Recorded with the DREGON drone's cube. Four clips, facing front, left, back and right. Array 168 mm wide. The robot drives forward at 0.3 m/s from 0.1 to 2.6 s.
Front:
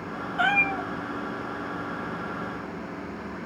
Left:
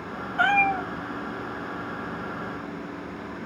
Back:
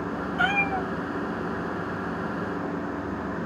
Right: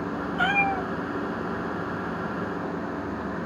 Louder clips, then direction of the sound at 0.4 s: Left 3 dB, front 1 dB; 65° left.